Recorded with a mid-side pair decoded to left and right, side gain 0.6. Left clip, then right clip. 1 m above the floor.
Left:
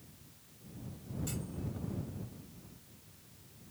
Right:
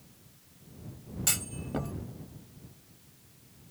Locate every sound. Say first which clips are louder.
1.3 s a clunk: right 14 dB; 65° right